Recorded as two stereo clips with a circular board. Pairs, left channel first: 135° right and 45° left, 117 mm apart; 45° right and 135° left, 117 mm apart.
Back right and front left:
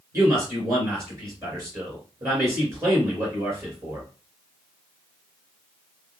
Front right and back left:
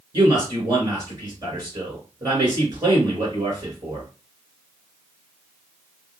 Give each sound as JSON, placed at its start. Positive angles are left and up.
{"t": 0.1, "sound": "a man speaking", "azimuth_deg": 95, "distance_m": 2.5}